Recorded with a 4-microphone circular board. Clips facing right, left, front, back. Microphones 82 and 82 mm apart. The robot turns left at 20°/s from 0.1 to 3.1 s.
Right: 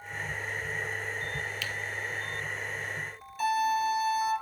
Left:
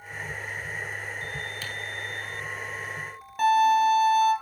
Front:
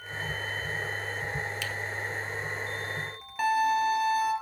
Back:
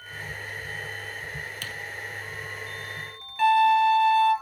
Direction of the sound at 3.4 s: 70° left.